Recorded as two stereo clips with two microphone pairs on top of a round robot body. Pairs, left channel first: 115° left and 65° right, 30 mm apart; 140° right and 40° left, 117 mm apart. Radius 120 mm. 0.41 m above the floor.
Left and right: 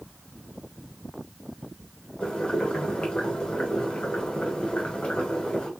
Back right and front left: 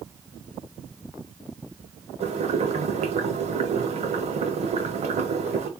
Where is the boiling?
50° left, 1.3 m.